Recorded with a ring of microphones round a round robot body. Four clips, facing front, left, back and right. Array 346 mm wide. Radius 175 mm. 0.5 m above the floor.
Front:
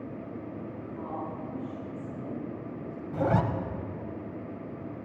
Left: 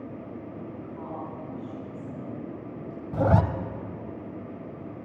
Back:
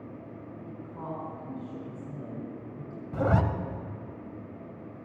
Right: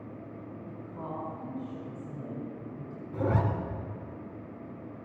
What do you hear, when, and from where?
0.7 s a woman speaking: 160° left, 4 m
3.1 s a zipper: 105° left, 0.9 m